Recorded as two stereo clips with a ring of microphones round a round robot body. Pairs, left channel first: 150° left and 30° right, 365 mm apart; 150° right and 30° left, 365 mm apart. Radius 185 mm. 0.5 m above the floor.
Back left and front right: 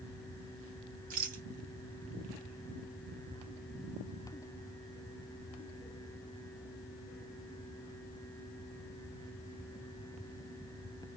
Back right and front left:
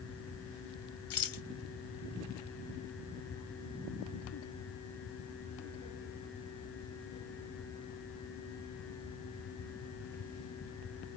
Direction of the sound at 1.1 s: 100° right.